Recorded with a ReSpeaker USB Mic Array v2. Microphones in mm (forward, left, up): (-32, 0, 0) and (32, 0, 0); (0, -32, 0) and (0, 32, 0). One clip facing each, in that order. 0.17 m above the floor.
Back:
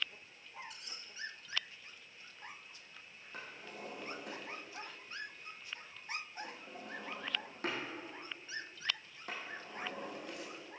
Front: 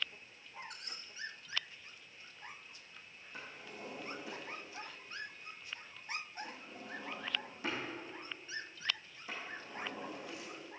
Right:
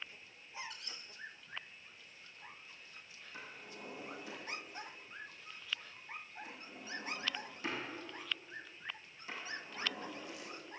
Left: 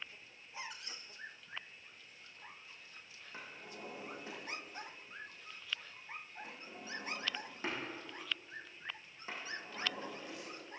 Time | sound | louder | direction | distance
0.6 | a squeak | front 3 dB, left 1 dB | 30° left | 0.8 m
3.3 | a drawer | back 1 dB, left 1 dB | 145° left | 3.5 m